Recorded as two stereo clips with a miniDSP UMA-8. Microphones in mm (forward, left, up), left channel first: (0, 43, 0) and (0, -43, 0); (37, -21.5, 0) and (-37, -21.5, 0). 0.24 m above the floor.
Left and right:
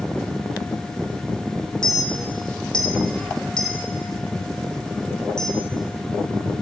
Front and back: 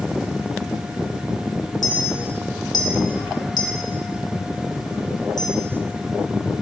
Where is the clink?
10° left, 2 m.